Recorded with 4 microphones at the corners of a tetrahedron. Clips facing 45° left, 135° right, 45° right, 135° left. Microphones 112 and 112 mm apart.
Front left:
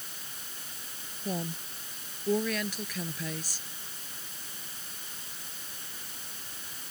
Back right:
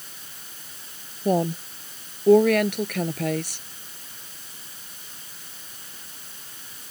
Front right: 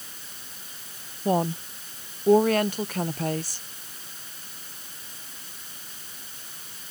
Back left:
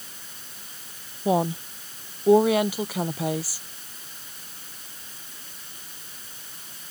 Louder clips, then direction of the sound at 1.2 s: Back right 13 dB, back left 1 dB; 145° right.